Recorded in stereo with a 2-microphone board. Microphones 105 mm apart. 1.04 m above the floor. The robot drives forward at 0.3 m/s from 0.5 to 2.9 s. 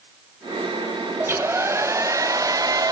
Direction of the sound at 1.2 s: 25° right (ahead or behind).